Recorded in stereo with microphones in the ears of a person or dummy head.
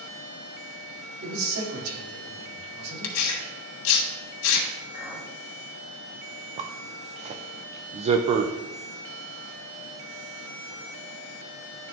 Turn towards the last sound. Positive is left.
turn(degrees=-35)  # may be behind; listen again after turning